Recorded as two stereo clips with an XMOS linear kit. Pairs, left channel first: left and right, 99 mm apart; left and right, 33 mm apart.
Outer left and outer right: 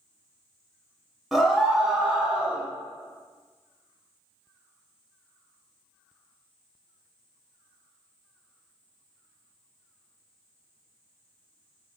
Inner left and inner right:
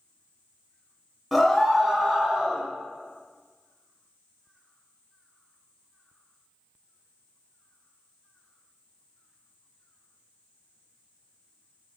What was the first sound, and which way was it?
A scream, centre (ahead or behind).